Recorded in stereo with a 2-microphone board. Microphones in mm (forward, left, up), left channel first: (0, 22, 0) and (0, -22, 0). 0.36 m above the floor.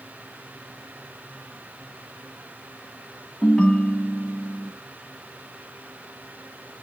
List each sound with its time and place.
3.4 s a ringtone: 20° left (ahead or behind), 2.5 m